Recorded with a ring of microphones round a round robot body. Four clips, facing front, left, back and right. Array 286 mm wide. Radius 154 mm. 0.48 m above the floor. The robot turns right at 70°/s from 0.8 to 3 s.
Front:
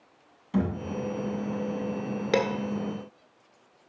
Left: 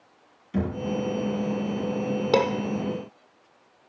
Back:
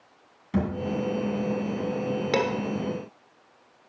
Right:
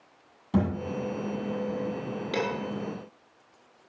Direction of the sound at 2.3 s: 65° left.